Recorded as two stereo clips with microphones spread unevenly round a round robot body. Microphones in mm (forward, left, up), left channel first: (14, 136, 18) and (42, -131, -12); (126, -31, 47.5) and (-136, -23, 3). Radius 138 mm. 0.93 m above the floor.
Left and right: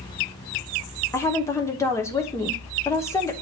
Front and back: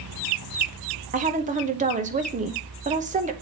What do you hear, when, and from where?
1.1 s a woman speaking: straight behind, 0.9 m